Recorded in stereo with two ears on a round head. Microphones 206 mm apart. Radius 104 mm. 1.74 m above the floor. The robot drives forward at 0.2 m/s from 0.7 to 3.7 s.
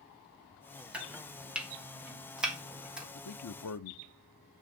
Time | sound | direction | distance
0.9 | chopping | 5° right (ahead or behind) | 1.3 m
3.1 | a man speaking | 80° left | 0.8 m